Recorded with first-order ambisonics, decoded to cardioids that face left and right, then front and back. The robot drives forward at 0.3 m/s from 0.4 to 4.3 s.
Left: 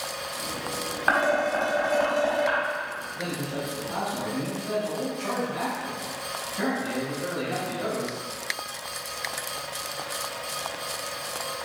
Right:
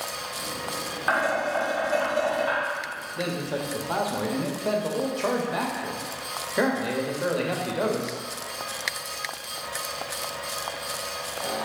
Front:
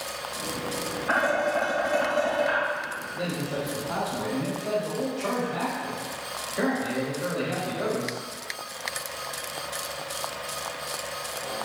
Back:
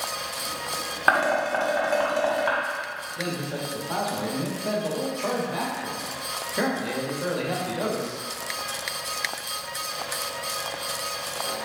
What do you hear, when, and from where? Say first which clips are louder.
1.1 s dishes clattering: left 2 dB, back 3 dB; 165° left, 1.5 m; by 2.6 s 170° left, 1.9 m
3.2 s a man speaking: right 5 dB, even; 85° right, 0.9 m; by 8.2 s 110° right, 1.0 m